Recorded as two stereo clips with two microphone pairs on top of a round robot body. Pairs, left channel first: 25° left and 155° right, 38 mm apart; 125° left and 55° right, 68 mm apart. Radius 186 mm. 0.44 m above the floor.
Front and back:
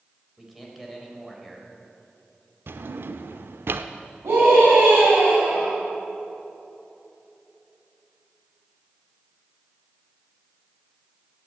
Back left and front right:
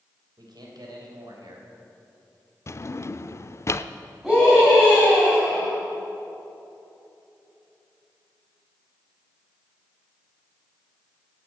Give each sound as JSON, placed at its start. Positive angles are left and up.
{"t": 0.4, "sound": "a man speaking", "azimuth_deg": -60, "distance_m": 4.0}
{"t": 2.7, "sound": "a drawer", "azimuth_deg": 175, "distance_m": 0.6}
{"t": 4.2, "sound": "a scream", "azimuth_deg": -145, "distance_m": 6.0}